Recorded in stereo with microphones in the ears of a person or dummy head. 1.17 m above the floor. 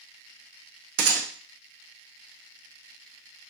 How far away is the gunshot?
About 0.7 m.